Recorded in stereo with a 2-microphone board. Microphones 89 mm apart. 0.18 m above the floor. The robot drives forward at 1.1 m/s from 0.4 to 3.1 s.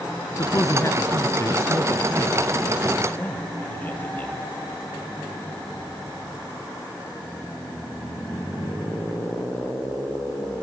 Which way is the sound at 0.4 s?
40° left (ahead or behind).